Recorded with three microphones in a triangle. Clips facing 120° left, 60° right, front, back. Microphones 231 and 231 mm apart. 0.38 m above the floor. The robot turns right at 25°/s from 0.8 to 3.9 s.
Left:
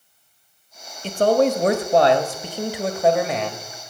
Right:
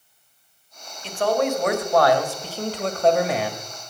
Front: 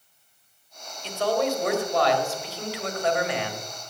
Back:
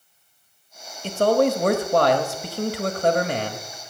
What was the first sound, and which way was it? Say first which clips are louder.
A man speaking: left 5 dB, back 6 dB; 155° left.